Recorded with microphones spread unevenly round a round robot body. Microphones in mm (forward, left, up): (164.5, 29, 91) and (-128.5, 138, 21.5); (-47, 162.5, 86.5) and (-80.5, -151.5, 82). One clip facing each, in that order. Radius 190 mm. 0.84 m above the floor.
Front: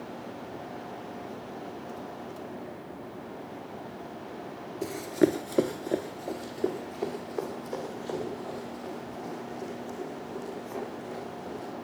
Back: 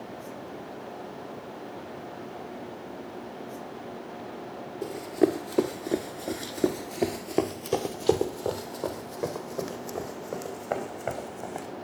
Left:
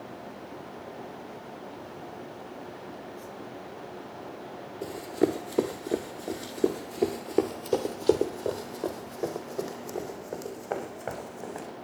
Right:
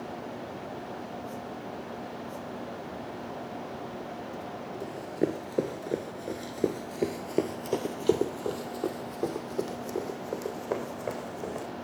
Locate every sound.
4.8 s running footsteps: 10° left, 1.1 m; by 11.7 s 175° right, 4 m